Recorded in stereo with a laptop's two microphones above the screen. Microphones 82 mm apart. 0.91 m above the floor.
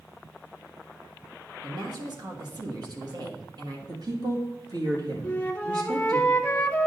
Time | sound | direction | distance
1.6 | a woman speaking | 55° right (ahead or behind) | 1.3 m
3.9 | a woman speaking | 55° right (ahead or behind) | 1.6 m
5.2 | a flute | 20° left (ahead or behind) | 0.7 m